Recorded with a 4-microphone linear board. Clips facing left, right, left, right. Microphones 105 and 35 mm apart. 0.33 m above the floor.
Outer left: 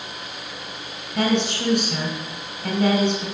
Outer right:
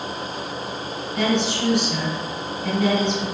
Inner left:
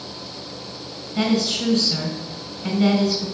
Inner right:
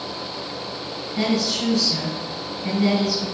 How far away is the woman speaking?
About 3 m.